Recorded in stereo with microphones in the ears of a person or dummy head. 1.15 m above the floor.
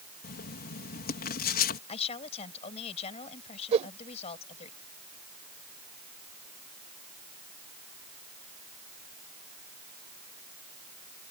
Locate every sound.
0.2 s writing: 50° left (ahead or behind)
1.9 s a woman speaking: 30° left (ahead or behind)
3.7 s a whoosh: 40° right (ahead or behind)